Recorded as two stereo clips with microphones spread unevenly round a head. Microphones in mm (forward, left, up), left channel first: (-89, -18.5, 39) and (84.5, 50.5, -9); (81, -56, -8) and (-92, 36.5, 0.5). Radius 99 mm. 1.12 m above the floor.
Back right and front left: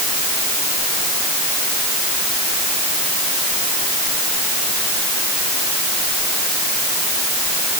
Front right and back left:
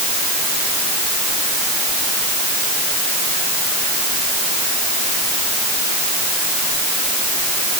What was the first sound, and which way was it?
Only background noise.